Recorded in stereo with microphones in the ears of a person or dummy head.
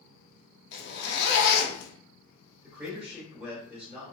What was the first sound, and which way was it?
A zipper, 65° left (ahead or behind).